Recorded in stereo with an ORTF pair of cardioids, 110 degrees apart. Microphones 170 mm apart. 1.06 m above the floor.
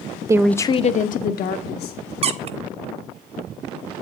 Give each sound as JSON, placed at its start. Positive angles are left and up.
{"t": 0.3, "sound": "a woman speaking", "azimuth_deg": -20, "distance_m": 0.7}
{"t": 2.2, "sound": "a squeak", "azimuth_deg": -40, "distance_m": 0.9}